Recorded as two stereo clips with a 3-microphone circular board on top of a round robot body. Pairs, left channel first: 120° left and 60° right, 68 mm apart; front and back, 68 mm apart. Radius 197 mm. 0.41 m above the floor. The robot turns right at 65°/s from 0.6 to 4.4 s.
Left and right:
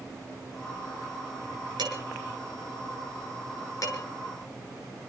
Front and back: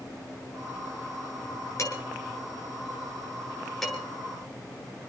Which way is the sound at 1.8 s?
45° right.